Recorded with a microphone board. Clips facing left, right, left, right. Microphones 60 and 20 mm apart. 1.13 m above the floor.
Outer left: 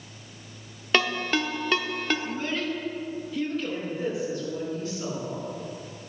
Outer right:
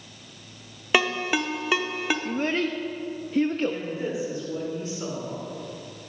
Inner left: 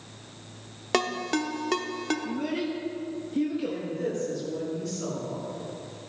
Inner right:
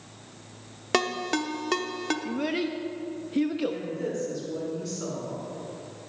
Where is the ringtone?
10° right (ahead or behind), 0.9 m.